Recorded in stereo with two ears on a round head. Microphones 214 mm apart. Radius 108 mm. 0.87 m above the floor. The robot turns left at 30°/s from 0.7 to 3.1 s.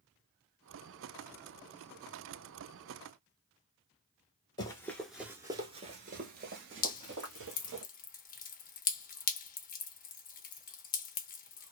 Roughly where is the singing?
I don't hear singing.